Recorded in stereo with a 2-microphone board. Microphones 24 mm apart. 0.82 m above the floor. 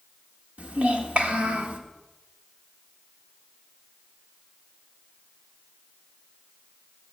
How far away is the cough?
No cough in this recording.